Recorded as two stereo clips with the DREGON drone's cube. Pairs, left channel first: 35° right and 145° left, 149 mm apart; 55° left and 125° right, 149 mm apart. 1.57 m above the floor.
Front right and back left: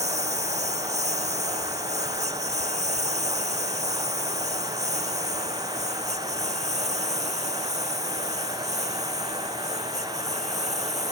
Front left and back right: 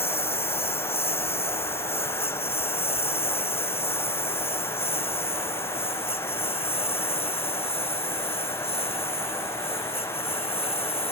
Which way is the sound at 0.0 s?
105° left.